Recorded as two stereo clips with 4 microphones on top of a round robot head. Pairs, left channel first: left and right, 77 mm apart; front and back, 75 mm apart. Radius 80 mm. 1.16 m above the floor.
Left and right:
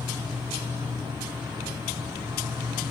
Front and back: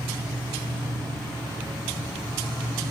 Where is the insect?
130° right, 3 m.